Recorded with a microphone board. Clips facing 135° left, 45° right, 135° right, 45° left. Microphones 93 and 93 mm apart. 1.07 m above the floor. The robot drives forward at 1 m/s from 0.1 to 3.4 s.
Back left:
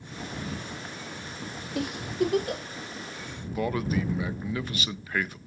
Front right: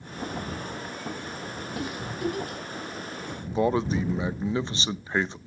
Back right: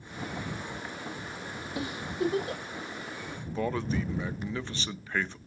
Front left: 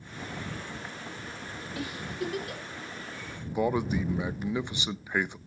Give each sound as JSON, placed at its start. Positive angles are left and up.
{"t": 1.8, "sound": "a giggle", "azimuth_deg": 155, "distance_m": 1.8}
{"t": 3.5, "sound": "a man speaking", "azimuth_deg": -15, "distance_m": 0.5}